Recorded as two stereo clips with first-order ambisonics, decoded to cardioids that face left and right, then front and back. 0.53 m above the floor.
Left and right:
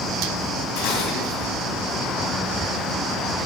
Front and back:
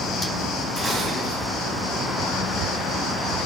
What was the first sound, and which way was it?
Dishes clattering, 105° left.